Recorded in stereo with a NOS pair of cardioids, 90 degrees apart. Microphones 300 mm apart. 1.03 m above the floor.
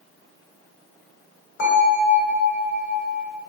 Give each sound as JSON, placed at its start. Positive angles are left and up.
{"t": 1.6, "sound": "a bell", "azimuth_deg": 45, "distance_m": 1.4}